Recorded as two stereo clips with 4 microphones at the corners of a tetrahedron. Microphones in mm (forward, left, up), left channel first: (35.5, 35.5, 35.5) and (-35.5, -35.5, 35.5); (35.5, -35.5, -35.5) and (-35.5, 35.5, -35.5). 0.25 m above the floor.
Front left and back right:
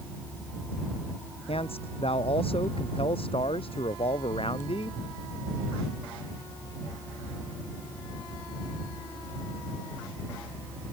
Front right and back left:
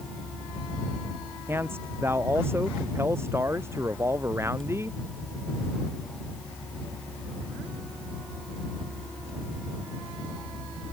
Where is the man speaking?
65° left; by 5.0 s 70° left.